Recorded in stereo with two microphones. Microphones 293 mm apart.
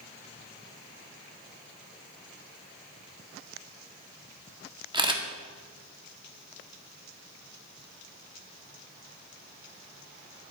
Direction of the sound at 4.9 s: 15° right (ahead or behind).